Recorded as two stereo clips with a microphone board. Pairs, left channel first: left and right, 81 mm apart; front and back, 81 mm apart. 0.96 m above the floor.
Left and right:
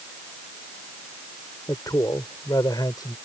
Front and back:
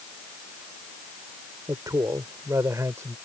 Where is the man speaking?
135° left; by 3.1 s 125° left.